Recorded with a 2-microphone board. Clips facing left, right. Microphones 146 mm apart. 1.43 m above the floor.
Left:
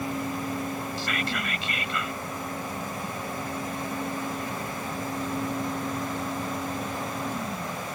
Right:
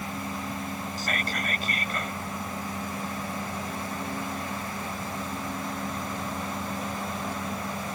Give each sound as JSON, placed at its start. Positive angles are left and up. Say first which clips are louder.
{"t": 1.0, "sound": "whispering", "louder": "left 1 dB", "side_deg": -45}